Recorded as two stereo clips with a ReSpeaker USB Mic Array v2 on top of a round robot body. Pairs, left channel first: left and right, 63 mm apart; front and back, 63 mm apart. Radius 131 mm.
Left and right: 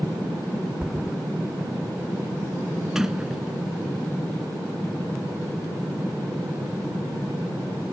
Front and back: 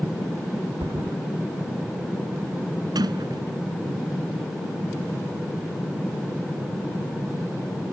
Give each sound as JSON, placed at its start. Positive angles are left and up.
{"t": 0.8, "sound": "a thud", "azimuth_deg": -170}
{"t": 3.0, "sound": "a sliding door", "azimuth_deg": -175}